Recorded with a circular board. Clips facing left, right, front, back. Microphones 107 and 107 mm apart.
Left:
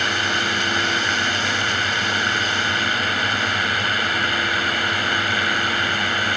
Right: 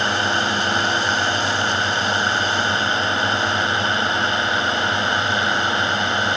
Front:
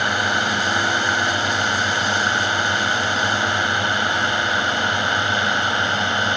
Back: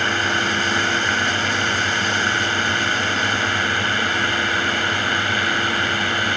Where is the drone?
60° right; by 6.4 s 50° right.